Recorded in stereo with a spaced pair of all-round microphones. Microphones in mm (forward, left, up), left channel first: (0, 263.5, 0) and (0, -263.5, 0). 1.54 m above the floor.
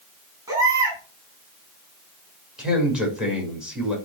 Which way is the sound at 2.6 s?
Centre (ahead or behind).